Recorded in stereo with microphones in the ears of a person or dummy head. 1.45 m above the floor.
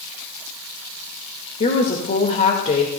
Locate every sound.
1.6 s a woman speaking: 40° left (ahead or behind), 1.8 m